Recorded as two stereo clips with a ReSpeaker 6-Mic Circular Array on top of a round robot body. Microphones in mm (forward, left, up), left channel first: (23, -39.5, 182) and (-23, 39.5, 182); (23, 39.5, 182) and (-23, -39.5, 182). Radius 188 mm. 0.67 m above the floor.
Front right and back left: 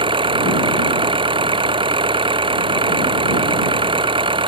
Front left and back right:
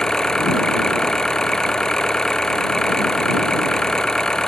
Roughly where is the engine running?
Behind left.